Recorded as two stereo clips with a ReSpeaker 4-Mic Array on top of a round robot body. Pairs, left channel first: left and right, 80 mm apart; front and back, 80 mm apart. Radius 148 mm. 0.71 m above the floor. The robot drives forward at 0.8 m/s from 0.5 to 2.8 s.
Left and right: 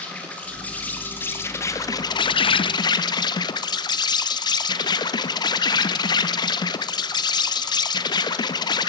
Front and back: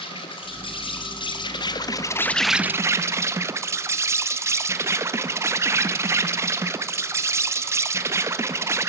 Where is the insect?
15° left, 1.6 m; by 8.9 s 125° left, 0.6 m.